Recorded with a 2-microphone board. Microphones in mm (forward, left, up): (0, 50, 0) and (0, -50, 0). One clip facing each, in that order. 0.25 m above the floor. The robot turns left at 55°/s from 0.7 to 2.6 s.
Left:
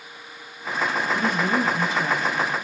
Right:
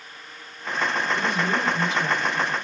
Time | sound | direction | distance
1.1 | a woman speaking | 100° left | 1.2 m